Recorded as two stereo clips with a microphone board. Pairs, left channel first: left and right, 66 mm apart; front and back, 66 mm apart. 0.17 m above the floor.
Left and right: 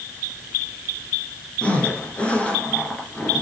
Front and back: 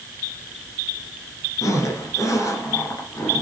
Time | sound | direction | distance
1.6 | a zipper | 20° left | 2 m